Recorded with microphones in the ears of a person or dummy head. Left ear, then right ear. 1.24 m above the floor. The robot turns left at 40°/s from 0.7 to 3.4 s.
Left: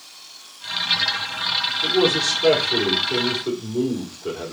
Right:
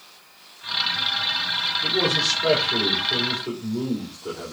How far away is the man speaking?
About 3.5 m.